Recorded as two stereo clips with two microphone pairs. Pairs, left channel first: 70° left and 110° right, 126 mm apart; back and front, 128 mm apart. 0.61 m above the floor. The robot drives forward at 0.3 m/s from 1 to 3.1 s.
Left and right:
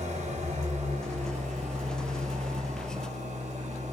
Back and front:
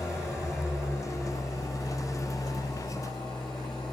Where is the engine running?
115° right, 2.5 m; by 3.9 s 125° right, 2.5 m.